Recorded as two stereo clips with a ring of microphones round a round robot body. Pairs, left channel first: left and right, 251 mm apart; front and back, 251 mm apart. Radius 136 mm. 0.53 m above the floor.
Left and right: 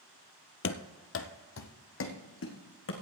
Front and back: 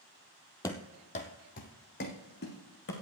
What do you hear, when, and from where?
0.6 s running footsteps: 75° left, 0.7 m; by 2.9 s 55° left, 2 m